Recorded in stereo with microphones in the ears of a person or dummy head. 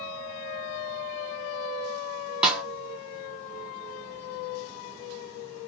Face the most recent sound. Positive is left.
turn(degrees=-5)  # may be behind; listen again after turning